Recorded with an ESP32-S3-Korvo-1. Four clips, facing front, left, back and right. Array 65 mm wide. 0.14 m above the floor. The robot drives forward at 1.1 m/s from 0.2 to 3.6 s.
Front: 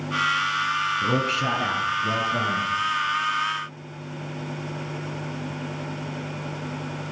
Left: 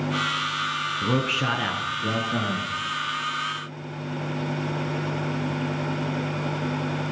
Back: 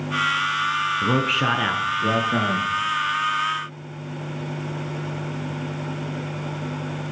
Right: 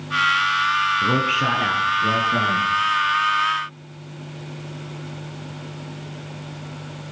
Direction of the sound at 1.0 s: 160° right.